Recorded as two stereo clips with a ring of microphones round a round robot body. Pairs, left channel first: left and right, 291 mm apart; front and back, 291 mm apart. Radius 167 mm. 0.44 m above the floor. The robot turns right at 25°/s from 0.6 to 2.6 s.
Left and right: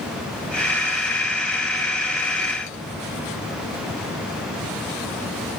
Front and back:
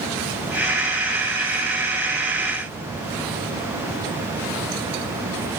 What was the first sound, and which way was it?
Only background noise.